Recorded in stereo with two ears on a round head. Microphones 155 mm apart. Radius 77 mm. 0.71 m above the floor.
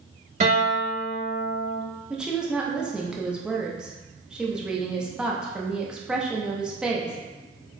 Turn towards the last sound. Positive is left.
turn(degrees=-5)  # may be behind; listen again after turning